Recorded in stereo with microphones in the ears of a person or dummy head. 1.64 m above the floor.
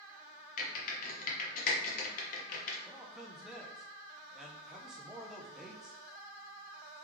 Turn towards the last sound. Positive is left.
turn(degrees=-5)  # may be behind; listen again after turning